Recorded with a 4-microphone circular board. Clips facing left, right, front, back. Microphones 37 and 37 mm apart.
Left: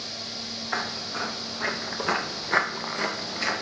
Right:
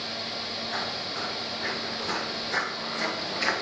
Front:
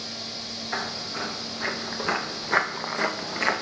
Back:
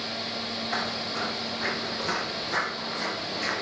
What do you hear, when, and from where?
0.7 s footsteps: 85° left, 1.7 m; by 3.6 s 15° right, 0.8 m